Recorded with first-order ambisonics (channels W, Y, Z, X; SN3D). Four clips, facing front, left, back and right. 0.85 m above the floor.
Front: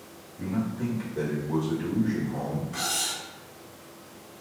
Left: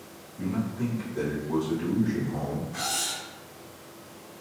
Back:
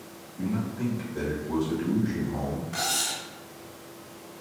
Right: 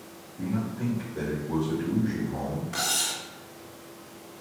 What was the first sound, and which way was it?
A man speaking, 160° left.